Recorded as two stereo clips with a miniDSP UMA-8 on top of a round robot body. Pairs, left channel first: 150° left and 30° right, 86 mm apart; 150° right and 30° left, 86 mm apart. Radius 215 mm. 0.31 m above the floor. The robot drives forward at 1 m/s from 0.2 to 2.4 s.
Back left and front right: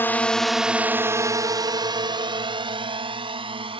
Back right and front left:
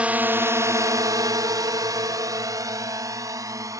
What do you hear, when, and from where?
0.0 s a drone: 100° left; by 3.8 s 20° right